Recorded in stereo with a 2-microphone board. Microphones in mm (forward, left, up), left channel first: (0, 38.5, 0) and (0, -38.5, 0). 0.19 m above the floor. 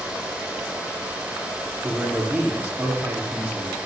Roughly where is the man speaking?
Centre.